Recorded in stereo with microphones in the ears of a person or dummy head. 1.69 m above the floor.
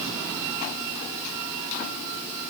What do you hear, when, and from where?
Only background noise.